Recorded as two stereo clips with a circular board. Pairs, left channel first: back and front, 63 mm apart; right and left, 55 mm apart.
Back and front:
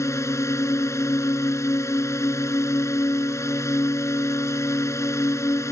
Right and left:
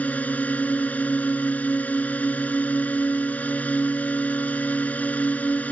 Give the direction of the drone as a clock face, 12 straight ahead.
5 o'clock.